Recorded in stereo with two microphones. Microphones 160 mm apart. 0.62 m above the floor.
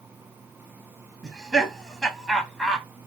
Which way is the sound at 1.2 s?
Centre (ahead or behind).